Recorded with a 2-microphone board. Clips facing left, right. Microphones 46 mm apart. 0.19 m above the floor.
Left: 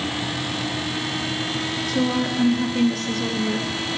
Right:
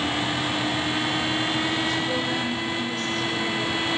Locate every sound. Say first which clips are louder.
1.9 s a woman speaking: left 3 dB; 70° left (ahead or behind), 4.5 m